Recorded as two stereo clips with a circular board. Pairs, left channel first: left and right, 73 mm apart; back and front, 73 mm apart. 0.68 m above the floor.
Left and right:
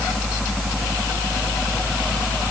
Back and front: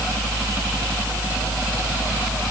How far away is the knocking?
I don't hear knocking.